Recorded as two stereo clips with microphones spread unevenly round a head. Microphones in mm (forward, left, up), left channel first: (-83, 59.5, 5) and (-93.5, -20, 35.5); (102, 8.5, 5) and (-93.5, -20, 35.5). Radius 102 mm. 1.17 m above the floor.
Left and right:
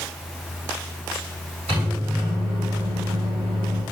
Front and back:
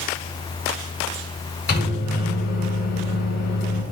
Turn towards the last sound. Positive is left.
turn(degrees=-40)